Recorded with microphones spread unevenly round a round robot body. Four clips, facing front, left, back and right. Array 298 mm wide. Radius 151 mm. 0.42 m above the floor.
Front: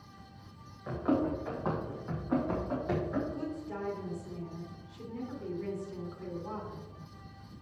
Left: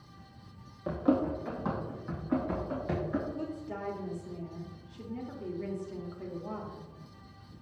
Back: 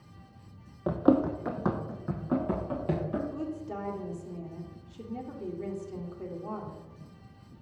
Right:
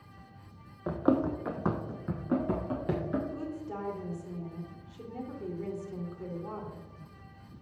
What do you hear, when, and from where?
0.9 s running footsteps: straight behind, 1.1 m; by 3.2 s 115° right, 3 m
3.3 s a woman speaking: 165° right, 1.4 m